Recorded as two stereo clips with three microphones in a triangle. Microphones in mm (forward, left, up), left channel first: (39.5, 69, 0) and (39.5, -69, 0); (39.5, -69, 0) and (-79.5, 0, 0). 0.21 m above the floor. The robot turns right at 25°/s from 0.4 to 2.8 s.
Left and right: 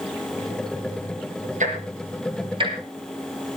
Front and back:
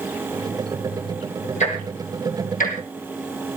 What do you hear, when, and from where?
1.6 s ticking: 65° right, 3.5 m; by 3.6 s 35° right, 3.5 m